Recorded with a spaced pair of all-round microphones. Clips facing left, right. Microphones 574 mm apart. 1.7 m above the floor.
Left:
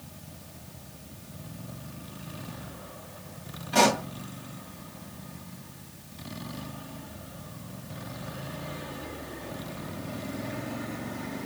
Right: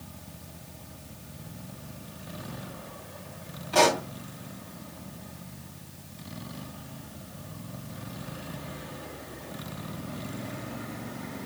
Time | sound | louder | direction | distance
3.7 | a pop | even | 35° left (ahead or behind) | 2 m